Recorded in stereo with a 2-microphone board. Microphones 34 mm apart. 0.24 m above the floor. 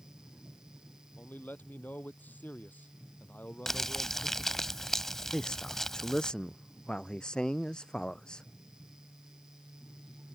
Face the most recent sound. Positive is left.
turn(degrees=25)  # may be behind; listen again after turning